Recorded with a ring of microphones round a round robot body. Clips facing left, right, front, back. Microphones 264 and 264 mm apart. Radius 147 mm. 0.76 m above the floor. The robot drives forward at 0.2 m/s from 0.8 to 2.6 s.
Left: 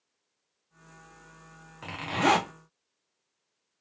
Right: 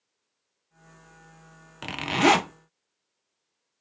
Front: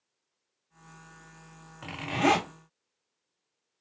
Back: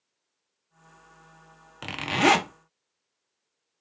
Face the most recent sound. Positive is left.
turn(degrees=-145)